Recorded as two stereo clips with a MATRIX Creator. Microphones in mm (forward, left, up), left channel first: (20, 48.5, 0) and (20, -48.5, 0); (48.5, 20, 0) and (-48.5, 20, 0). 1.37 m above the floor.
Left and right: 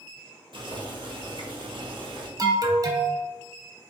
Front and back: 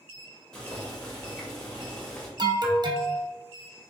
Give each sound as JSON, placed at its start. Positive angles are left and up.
{"t": 0.5, "sound": "boiling", "azimuth_deg": -80, "distance_m": 1.0}
{"t": 2.4, "sound": "an alarm", "azimuth_deg": -140, "distance_m": 0.5}